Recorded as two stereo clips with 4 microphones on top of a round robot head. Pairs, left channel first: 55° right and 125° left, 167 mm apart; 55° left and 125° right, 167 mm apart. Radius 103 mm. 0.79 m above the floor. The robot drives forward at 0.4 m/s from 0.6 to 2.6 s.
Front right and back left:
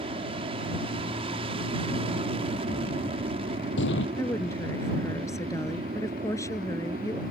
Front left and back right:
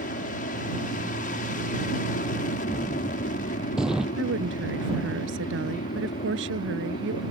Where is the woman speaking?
125° right.